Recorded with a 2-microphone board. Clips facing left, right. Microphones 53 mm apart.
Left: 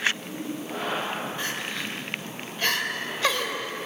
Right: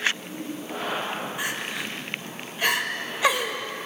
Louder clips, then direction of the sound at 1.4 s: Right 1 dB; 15° right (ahead or behind).